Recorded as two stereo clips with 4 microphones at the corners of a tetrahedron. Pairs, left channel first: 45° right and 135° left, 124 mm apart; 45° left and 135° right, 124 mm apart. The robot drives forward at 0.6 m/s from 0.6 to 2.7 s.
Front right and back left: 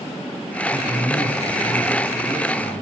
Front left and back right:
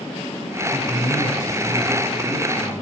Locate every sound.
0.7 s a man speaking: 100° left, 3 m; by 2.8 s 120° left, 3.5 m